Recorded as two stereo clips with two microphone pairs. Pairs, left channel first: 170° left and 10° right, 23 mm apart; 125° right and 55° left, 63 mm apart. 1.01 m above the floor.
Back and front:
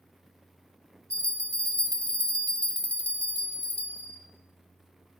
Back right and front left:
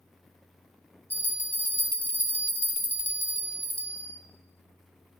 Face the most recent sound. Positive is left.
turn(degrees=165)